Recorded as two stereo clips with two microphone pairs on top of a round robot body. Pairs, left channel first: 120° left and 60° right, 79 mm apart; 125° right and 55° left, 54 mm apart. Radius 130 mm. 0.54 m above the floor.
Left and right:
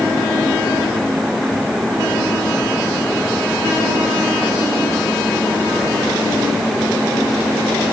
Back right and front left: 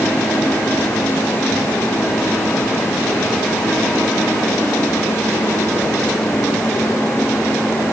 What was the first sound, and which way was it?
Only background noise.